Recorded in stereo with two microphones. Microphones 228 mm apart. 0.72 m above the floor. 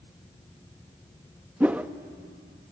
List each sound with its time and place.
1.6 s a whoosh: 5° right (ahead or behind), 0.5 m